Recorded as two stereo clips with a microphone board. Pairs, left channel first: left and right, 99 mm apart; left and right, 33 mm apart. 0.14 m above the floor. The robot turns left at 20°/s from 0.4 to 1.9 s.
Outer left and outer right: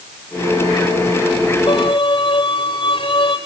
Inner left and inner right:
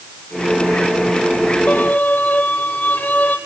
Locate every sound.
1.7 s a violin: 55° left (ahead or behind), 4.5 m; by 3.4 s 50° left (ahead or behind), 4.5 m